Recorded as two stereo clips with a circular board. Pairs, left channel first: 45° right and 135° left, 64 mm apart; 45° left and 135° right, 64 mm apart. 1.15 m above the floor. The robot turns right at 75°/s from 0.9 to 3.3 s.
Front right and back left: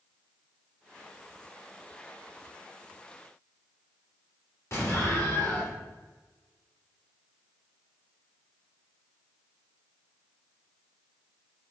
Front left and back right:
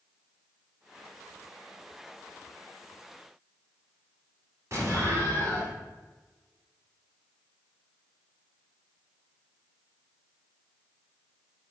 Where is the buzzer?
I don't hear a buzzer.